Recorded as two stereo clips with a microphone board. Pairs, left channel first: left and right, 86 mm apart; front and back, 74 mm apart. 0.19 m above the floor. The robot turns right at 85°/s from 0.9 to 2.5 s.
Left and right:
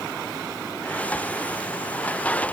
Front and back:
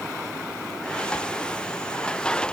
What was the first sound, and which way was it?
Only background noise.